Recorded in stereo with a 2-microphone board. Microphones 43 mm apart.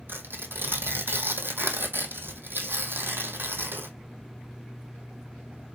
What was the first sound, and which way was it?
Tearing paper, 60° right (ahead or behind).